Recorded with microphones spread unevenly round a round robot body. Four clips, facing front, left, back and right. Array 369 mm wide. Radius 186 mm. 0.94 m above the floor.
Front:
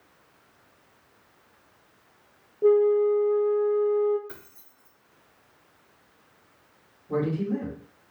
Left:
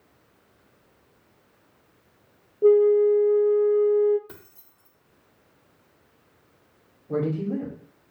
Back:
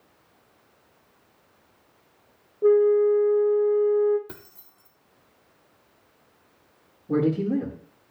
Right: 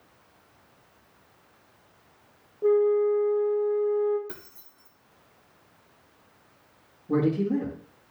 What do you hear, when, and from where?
2.6 s a flute: 80° left, 0.5 m
4.3 s keys jangling: 160° right, 1.8 m
7.1 s a man speaking: 145° right, 3 m